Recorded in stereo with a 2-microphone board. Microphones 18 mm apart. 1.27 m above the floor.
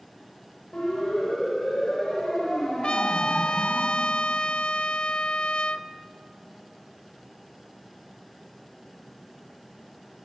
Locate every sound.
0.7 s a siren: 70° left (ahead or behind), 8.5 m; by 3.8 s 80° left, 6.5 m
2.8 s a trumpet: 85° left, 0.7 m